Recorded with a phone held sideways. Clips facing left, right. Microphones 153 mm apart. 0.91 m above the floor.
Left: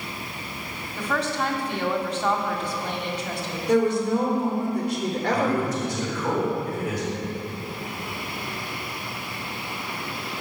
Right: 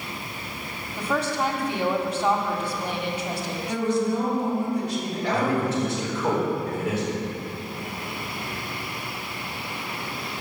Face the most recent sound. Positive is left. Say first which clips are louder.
# right 2 dB
turn(degrees=-25)  # may be behind; listen again after turning